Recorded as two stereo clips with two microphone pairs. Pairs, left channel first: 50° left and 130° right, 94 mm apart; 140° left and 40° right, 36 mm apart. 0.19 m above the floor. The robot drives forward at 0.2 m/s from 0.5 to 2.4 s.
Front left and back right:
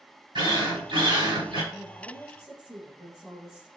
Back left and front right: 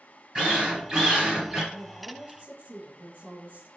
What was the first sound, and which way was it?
A drill, 100° right.